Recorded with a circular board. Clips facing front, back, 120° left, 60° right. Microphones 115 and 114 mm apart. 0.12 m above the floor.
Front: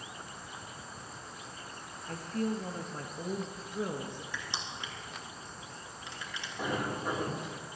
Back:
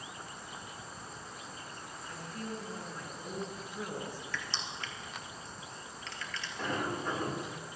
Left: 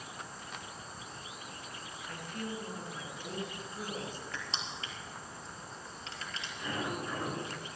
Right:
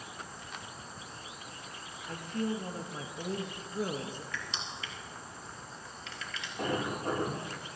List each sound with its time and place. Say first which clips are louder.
2.1 s a woman speaking: front 9 dB, right 7 dB; 10° right, 3 m; by 4.2 s 60° right, 2.5 m
4.3 s crushing: even, even; 70° left, 3 m
6.6 s a sliding door: front 1 dB, right 4 dB; 80° right, 5.5 m